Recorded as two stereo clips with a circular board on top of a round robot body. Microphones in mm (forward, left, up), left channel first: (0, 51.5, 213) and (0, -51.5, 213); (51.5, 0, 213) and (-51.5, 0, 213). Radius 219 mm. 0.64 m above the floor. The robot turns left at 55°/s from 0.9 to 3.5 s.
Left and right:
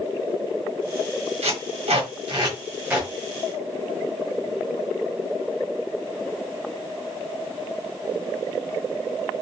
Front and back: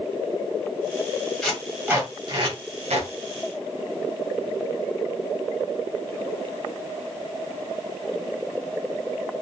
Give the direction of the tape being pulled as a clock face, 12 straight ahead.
3 o'clock.